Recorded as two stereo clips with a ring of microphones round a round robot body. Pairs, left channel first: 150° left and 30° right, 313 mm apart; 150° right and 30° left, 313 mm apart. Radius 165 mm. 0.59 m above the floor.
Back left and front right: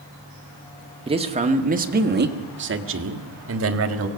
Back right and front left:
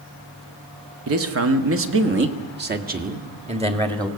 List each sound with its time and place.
1.1 s a man speaking: 35° left, 1.7 m; by 4.1 s 45° right, 1.7 m